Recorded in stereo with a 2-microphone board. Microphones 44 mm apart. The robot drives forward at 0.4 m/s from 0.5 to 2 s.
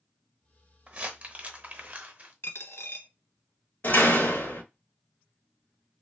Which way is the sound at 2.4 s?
70° left (ahead or behind).